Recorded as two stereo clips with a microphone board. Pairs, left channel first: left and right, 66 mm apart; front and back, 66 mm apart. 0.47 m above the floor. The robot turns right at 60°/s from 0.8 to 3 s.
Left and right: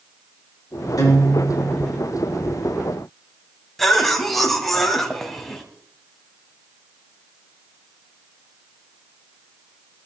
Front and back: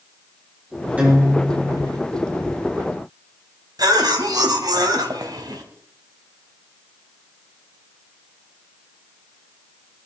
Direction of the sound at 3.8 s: 175° left.